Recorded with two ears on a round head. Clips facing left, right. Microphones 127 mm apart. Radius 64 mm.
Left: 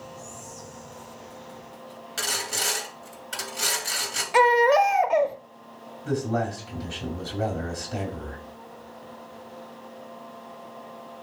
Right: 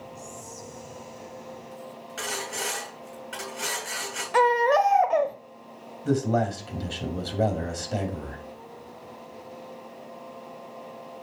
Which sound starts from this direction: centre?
A baby crying, at 4.3 s.